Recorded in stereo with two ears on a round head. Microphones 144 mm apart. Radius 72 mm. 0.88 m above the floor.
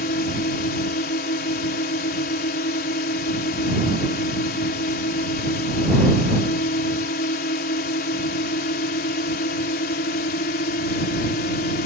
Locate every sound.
0.0 s a drone: 55° left (ahead or behind)